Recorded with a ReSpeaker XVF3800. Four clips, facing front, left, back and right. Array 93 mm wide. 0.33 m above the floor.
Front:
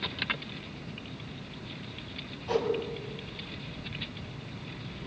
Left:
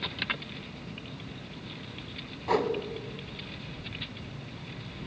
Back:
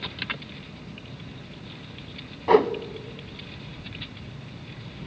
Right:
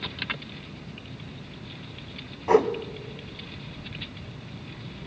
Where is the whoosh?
155° right, 1.1 m.